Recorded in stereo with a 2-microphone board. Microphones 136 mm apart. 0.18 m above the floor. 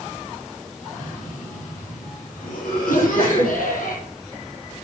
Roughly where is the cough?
Left.